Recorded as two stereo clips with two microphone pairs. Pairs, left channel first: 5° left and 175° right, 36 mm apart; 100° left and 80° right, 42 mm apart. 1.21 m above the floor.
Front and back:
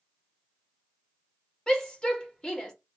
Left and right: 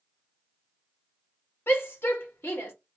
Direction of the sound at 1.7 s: 75° left.